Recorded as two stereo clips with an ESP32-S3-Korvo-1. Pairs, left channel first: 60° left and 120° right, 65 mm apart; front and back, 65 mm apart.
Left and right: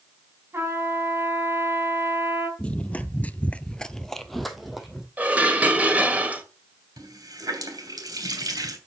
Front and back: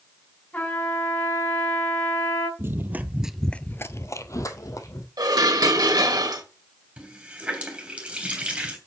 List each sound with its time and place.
0.5 s a trumpet: 70° right, 5 m
2.6 s running footsteps: 130° left, 1.3 m; by 5.1 s 35° right, 2 m
5.2 s dishes clattering: 175° left, 1.9 m
7.0 s a running tap: 110° right, 3 m